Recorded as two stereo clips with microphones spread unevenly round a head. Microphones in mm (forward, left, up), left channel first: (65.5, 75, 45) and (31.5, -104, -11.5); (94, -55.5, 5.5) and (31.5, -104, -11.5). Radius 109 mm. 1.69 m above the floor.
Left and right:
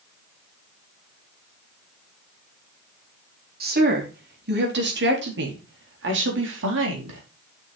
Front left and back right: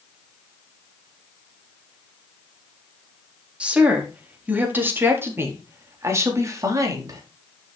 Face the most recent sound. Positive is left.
turn(degrees=-95)